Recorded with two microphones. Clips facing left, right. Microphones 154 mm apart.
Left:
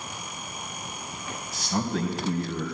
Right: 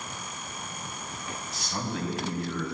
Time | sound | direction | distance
1.5 | a man speaking | 40° left (ahead or behind) | 2.5 m